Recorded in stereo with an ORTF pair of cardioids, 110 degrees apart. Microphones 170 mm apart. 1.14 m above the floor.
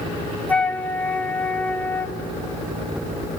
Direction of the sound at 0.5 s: 10° left.